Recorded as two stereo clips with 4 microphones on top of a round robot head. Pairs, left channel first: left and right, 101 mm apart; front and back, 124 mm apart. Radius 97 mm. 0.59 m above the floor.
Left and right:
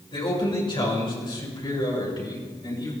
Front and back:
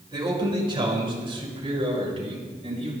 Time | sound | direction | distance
0.1 | a man speaking | 125° left | 7 m